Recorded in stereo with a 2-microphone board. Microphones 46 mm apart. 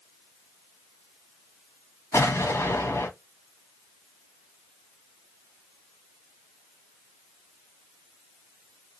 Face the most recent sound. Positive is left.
turn(degrees=85)